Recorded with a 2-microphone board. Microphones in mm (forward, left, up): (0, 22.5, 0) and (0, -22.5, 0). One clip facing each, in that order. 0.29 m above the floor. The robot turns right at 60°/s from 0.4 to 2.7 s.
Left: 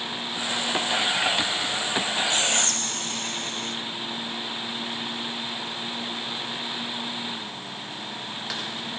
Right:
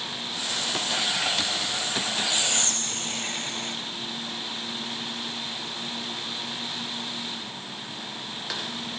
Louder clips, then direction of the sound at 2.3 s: Left 3 dB; 25° right (ahead or behind).